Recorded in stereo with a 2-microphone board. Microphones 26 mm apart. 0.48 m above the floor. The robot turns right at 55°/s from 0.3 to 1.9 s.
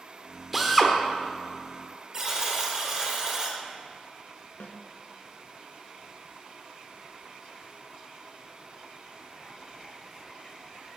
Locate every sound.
0.5 s a drill: 5° right (ahead or behind), 1.2 m; by 0.9 s 10° left (ahead or behind), 1.2 m
2.1 s a buzzer: 25° right (ahead or behind), 2 m
4.6 s a snare drum: 80° left, 1.1 m